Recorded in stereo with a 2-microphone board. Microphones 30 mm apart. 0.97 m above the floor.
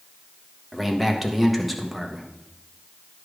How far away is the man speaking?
About 1.2 m.